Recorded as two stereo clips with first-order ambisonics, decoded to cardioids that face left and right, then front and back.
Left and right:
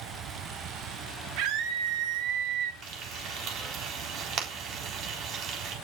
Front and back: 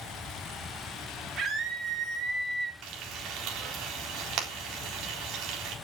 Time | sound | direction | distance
1.4 | a scream | 120° right | 4 m
2.8 | frying | 140° right | 3.5 m